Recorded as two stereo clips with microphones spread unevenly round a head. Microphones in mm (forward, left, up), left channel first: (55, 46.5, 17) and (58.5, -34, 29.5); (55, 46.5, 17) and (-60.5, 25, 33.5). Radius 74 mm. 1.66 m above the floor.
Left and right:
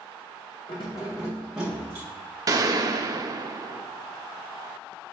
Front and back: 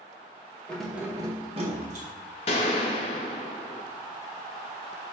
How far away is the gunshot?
About 0.5 m.